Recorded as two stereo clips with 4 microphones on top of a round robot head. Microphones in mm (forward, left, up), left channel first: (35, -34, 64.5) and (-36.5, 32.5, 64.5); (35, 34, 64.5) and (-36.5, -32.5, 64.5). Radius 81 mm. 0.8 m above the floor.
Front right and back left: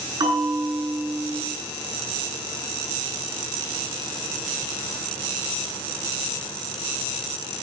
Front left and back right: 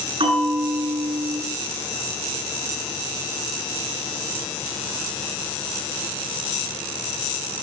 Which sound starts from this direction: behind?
A bell, at 0.2 s.